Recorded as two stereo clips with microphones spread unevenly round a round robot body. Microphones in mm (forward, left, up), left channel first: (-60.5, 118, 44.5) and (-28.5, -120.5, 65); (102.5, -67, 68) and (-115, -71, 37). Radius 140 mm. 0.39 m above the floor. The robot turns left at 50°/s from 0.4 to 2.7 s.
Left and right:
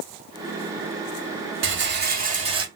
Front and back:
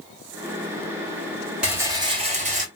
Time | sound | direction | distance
1.6 | a rattle | 100° right | 2.0 m